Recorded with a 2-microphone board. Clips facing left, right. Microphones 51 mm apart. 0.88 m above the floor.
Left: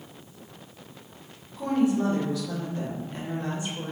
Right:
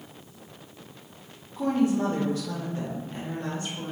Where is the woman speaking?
60° right (ahead or behind), 1.2 m; by 3.9 s 20° left (ahead or behind), 1.3 m.